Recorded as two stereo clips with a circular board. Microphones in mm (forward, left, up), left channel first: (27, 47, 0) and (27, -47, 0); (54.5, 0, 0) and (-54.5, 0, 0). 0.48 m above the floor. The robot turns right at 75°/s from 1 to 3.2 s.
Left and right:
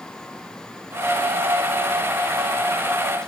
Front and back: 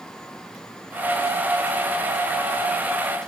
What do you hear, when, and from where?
Only background noise.